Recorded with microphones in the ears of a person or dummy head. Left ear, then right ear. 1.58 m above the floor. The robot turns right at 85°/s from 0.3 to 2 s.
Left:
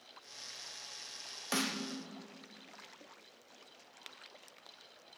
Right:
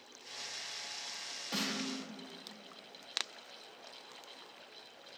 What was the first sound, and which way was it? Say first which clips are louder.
A snare drum: left 2 dB; 50° left (ahead or behind).